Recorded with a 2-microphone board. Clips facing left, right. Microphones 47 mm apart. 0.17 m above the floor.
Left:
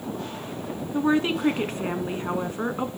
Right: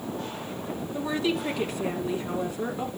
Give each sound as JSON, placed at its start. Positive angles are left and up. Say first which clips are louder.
{"t": 0.9, "sound": "a woman speaking", "louder": "left 5 dB", "side_deg": 40, "distance_m": 1.8}